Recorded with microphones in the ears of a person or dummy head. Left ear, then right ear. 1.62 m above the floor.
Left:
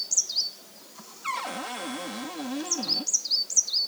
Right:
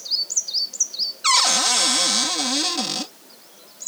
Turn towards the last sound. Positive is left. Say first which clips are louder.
# right 13 dB
turn(degrees=-75)  # may be behind; listen again after turning